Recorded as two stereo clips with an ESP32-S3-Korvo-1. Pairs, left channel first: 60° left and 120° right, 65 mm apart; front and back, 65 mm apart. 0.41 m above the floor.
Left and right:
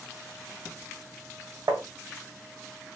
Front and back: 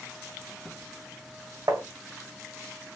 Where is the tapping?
145° right, 0.6 m.